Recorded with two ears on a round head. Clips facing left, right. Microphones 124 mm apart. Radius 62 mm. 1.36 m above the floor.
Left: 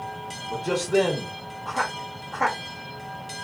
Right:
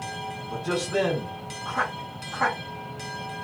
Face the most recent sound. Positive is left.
turn(degrees=20)  # may be behind; listen again after turning